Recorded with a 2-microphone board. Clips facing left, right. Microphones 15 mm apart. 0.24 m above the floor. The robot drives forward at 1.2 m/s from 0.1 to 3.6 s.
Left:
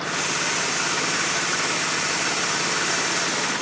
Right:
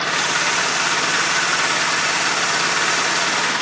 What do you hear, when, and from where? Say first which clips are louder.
0.0 s an engine running: right 6 dB; 35° right (ahead or behind)